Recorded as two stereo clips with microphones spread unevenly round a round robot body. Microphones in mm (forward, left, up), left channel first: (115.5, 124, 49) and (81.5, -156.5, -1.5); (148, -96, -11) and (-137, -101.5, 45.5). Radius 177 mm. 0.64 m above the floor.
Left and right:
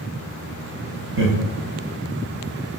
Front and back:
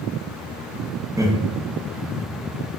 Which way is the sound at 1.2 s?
90° right.